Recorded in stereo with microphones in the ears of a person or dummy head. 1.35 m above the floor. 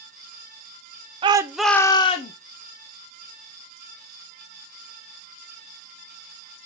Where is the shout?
30° right (ahead or behind), 0.5 m; by 2.3 s 30° left (ahead or behind), 0.8 m.